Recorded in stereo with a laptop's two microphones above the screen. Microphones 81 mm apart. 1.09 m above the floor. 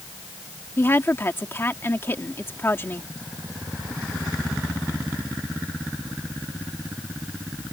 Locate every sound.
0.8 s a woman speaking: 30° left (ahead or behind)